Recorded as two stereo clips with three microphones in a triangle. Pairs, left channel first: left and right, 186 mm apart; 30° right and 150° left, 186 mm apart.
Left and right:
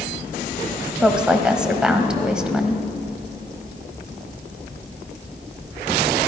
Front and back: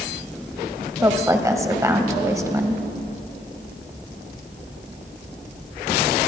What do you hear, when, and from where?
1.0 s a woman speaking: 170° right, 1.1 m